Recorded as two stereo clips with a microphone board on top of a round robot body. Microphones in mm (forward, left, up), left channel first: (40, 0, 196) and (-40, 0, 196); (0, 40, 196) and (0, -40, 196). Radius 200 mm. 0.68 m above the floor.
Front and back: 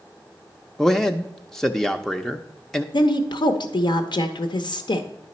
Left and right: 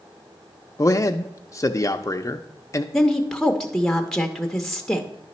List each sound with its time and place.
0.8 s a man speaking: 85° left, 0.6 m
2.9 s a woman speaking: 5° left, 0.8 m